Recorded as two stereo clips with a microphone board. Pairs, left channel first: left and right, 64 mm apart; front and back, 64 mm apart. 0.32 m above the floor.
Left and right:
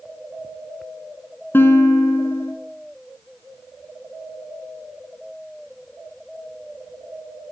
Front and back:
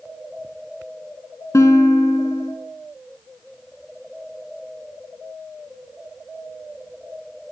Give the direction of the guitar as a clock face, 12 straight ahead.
11 o'clock.